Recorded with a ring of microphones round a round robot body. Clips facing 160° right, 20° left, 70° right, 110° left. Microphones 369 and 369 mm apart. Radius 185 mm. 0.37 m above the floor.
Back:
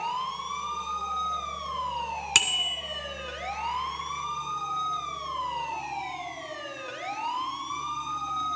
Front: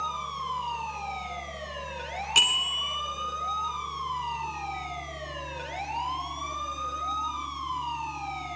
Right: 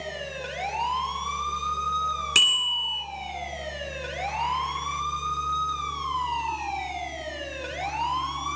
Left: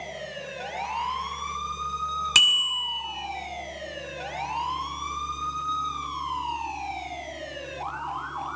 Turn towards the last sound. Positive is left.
turn(degrees=180)